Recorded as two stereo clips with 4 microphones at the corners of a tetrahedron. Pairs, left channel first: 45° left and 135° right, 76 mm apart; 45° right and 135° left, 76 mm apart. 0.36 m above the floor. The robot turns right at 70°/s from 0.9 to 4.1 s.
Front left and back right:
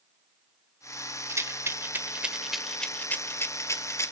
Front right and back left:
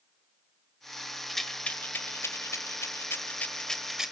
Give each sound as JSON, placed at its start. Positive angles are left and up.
{"t": 1.3, "sound": "a rattle", "azimuth_deg": -135, "distance_m": 1.5}